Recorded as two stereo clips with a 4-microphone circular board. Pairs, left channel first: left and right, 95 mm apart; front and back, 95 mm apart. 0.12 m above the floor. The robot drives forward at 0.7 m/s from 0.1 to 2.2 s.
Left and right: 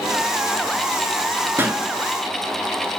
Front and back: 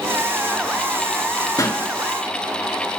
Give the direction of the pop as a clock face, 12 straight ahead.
1 o'clock.